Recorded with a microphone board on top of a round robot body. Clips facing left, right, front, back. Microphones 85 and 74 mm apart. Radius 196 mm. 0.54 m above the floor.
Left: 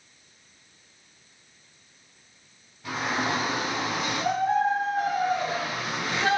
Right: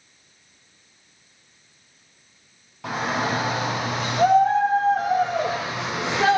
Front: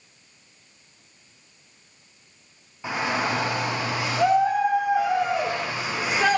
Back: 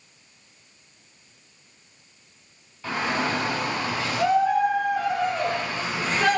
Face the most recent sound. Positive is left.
turn(degrees=-80)